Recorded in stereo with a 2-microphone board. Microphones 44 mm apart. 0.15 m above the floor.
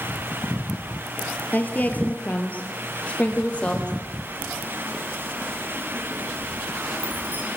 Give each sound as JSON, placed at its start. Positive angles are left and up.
{"t": 1.5, "sound": "a woman speaking", "side_deg": 45, "distance_m": 4.0}
{"t": 4.3, "sound": "keys jangling", "side_deg": -40, "distance_m": 6.0}